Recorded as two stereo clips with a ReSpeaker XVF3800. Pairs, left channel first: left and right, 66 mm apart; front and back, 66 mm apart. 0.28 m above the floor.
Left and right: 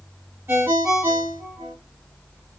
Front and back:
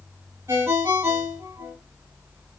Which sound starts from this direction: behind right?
A ringtone, at 0.5 s.